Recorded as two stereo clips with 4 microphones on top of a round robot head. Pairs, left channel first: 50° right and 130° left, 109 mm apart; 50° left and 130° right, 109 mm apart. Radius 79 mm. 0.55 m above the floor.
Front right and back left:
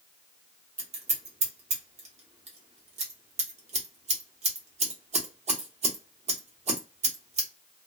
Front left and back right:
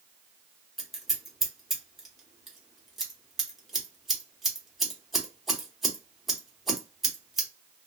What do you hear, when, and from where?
0.8 s scissors: 140° left, 1.0 m